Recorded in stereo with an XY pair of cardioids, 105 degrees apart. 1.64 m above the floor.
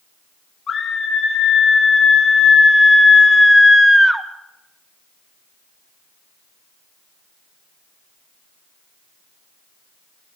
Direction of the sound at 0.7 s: 45° left.